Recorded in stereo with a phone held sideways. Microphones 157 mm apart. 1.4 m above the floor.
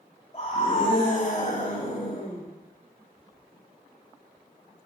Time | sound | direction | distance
0.3 | a scream | 40° left (ahead or behind) | 7.5 m